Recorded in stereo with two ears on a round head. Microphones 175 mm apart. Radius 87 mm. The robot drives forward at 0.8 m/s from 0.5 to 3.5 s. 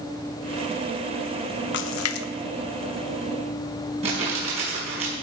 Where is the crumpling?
35° right (ahead or behind), 5.5 m.